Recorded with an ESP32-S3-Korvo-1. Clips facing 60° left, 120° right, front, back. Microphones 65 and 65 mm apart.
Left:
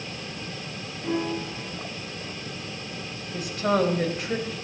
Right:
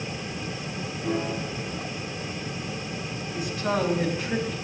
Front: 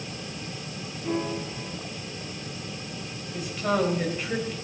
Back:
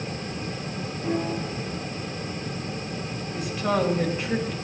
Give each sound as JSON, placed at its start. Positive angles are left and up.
{"t": 1.0, "sound": "a piano", "azimuth_deg": 130, "distance_m": 6.5}
{"t": 3.3, "sound": "a woman speaking", "azimuth_deg": 90, "distance_m": 3.0}